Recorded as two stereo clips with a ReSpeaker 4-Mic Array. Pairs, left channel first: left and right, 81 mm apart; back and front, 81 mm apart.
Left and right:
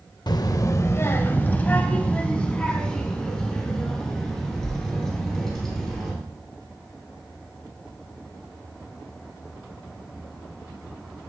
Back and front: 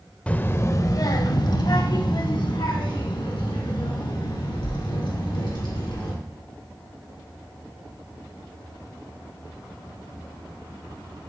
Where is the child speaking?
105° left, 0.6 m; by 6.1 s 175° left, 4.5 m.